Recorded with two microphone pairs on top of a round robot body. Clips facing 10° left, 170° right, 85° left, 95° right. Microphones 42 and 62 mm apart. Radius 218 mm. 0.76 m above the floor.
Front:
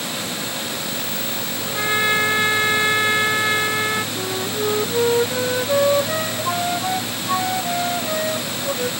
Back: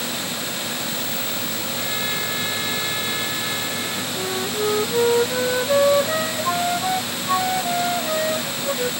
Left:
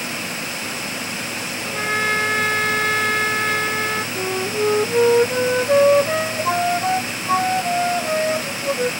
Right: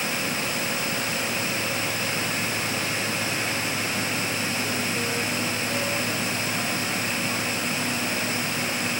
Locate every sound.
1.6 s a trumpet: 60° left
4.2 s a flute: 105° left